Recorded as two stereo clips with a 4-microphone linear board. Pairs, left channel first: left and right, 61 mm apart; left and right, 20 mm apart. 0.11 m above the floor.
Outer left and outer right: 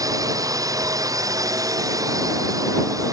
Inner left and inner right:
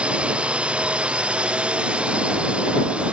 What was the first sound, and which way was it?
A drone, 80° right.